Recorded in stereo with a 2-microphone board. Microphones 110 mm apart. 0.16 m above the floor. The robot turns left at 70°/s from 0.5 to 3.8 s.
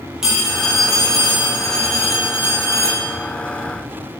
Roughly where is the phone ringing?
Behind.